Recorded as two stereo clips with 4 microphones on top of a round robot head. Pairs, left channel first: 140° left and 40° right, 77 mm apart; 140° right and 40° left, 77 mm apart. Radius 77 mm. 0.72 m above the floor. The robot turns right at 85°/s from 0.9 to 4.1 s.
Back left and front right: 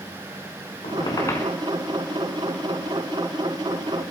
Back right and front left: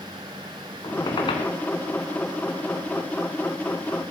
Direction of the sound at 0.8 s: 165° left.